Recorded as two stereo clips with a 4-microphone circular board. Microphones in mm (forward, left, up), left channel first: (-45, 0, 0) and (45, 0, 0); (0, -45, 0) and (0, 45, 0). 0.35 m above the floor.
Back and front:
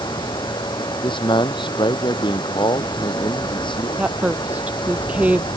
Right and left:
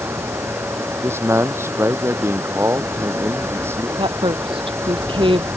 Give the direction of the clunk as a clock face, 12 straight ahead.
I don't hear a clunk.